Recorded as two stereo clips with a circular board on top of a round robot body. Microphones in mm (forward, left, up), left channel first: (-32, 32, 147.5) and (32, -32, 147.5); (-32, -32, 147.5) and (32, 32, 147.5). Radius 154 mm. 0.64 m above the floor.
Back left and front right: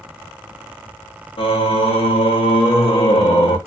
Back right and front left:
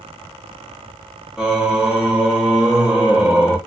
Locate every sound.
1.4 s singing: 125° left, 0.7 m